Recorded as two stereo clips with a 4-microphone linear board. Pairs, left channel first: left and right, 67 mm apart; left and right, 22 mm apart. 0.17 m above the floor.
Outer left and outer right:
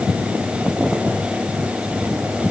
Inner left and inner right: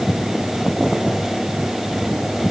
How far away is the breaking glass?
No breaking glass in this recording.